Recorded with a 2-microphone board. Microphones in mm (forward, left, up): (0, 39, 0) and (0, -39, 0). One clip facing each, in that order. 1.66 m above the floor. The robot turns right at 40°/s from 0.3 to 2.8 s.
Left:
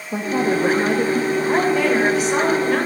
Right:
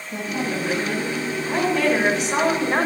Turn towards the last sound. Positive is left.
turn(degrees=-160)